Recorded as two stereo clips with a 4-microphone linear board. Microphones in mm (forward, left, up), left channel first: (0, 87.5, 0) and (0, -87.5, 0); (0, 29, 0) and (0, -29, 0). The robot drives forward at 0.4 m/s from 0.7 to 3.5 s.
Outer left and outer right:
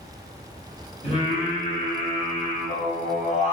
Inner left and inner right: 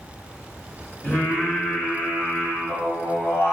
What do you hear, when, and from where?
1.0 s singing: 40° left (ahead or behind), 2 m; by 3.5 s 45° left (ahead or behind), 1.9 m